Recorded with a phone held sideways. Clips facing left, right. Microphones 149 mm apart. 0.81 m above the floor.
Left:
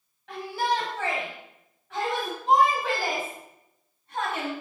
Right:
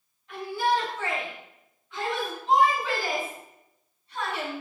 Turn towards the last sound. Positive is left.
turn(degrees=55)  # may be behind; listen again after turning